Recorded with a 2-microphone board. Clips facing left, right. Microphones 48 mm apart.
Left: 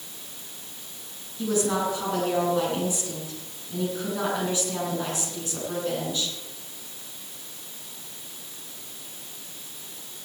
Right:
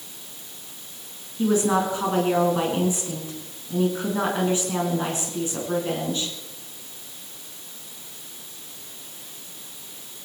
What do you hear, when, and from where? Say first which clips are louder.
1.4 s a woman speaking: right 4 dB; 30° right (ahead or behind), 5 m